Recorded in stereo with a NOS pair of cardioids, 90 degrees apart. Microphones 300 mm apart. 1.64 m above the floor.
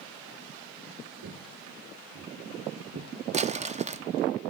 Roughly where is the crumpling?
Ahead right.